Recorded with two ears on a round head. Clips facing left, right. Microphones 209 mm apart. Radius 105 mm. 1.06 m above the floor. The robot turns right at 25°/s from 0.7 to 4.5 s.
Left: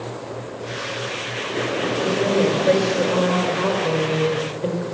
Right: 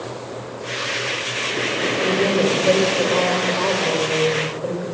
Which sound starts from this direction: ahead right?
A woman speaking, at 2.0 s.